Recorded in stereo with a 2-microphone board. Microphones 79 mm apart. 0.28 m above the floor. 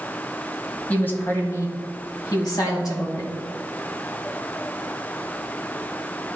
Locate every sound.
0.9 s a woman speaking: 20° left (ahead or behind), 1.9 m; by 3.3 s 50° left (ahead or behind), 3 m